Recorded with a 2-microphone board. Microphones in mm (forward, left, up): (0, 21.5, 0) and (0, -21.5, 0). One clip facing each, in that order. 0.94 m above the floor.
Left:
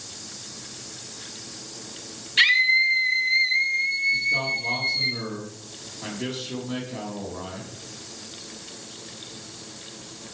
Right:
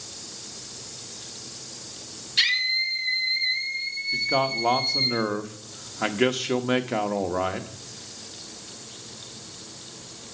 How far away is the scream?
About 1.5 m.